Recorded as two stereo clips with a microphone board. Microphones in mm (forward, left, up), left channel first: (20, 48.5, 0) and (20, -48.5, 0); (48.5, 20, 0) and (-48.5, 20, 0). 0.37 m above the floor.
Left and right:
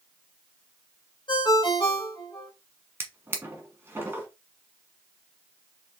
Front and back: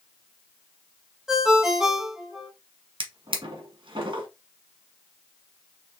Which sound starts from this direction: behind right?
A drawer, at 3.0 s.